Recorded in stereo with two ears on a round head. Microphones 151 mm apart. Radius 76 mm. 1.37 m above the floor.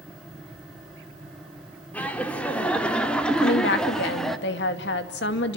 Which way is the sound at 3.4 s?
70° left (ahead or behind).